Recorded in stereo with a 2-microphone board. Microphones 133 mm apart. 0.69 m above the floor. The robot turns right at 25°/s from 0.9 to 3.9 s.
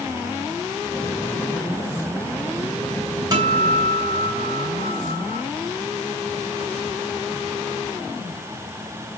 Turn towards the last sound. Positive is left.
turn(degrees=-45)  # may be behind; listen again after turning